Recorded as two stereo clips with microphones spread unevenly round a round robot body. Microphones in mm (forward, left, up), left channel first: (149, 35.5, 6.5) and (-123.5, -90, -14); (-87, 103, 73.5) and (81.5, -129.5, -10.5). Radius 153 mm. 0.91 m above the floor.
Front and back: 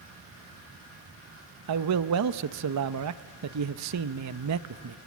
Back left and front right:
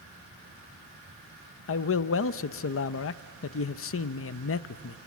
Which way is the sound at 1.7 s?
Straight behind.